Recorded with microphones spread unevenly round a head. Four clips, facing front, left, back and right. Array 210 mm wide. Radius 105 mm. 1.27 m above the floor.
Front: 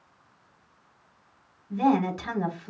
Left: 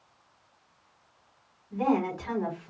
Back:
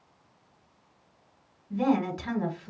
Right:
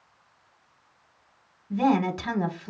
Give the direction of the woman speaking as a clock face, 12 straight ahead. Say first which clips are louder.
Right 4 dB, front 3 dB; 3 o'clock.